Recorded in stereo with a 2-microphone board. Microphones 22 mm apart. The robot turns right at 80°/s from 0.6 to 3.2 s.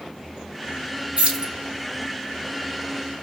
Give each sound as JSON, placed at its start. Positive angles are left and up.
{"t": 1.2, "sound": "keys jangling", "side_deg": -65, "distance_m": 1.4}